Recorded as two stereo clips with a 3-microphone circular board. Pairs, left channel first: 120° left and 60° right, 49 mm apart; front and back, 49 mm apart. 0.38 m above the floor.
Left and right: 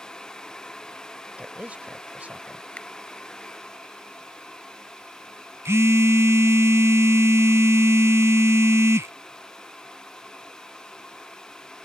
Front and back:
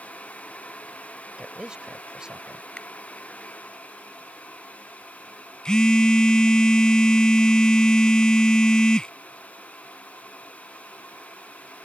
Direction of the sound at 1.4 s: 110° right.